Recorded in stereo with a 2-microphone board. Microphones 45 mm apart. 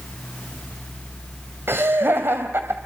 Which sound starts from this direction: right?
Laughter, at 1.7 s.